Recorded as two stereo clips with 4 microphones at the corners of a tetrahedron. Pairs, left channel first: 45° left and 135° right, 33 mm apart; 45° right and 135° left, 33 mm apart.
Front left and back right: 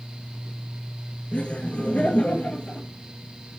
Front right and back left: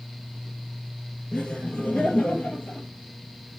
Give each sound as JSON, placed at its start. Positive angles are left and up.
{"t": 1.3, "sound": "laughter", "azimuth_deg": 15, "distance_m": 3.0}